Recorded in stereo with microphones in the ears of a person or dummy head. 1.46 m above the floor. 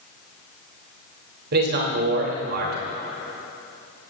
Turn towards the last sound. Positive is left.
turn(degrees=-55)  # may be behind; listen again after turning